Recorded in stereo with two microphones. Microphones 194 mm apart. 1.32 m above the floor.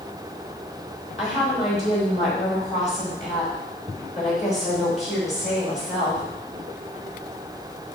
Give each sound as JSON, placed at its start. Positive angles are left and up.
{"t": 1.2, "sound": "a woman speaking", "side_deg": 40, "distance_m": 4.5}